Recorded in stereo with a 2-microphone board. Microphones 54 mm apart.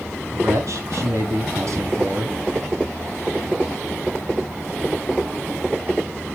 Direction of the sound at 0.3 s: 65° right (ahead or behind).